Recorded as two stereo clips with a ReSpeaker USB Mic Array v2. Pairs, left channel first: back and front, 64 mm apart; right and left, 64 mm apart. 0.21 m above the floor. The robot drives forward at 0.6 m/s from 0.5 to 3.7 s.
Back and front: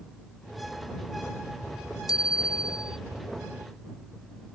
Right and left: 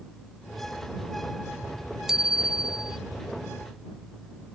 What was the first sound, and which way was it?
A bicycle bell, 175° left.